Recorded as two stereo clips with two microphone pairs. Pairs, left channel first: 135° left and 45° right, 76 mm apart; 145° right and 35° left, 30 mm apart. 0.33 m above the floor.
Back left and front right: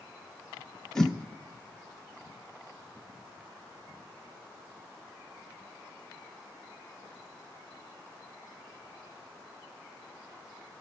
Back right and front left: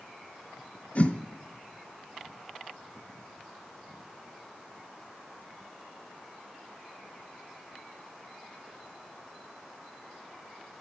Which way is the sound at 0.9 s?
140° right.